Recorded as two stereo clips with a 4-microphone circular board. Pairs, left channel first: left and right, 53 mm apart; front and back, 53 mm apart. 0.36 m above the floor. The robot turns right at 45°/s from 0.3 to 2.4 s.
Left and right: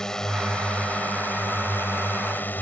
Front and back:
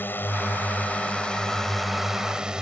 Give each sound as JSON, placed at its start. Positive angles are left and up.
{"t": 0.0, "sound": "a drone", "azimuth_deg": 15}